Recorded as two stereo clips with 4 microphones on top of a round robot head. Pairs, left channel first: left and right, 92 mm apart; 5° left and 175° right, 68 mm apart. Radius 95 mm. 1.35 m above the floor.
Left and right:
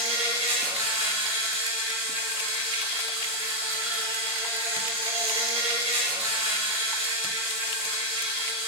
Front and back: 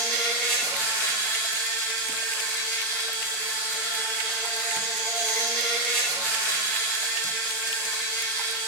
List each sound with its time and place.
0.0 s an insect: 90° right, 4.5 m